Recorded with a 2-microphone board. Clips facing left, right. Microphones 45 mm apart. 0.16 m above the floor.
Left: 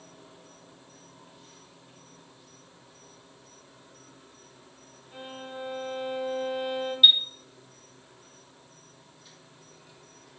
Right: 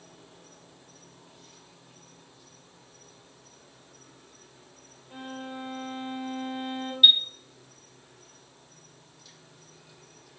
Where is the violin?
40° right (ahead or behind), 7.5 m.